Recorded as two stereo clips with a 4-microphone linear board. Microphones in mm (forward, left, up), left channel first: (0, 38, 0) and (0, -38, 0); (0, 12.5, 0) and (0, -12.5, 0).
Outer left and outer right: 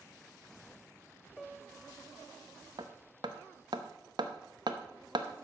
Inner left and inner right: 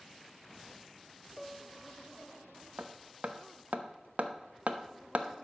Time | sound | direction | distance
1.4 | a piano | 5° left (ahead or behind) | 0.7 m
2.8 | hammering | 70° right (ahead or behind) | 0.8 m